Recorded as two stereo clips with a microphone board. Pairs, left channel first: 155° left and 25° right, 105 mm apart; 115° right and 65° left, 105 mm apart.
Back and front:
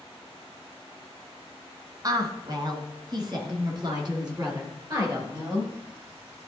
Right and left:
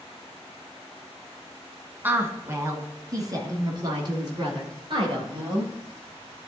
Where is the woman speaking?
5° left, 1.2 m; by 5.7 s 25° left, 3 m.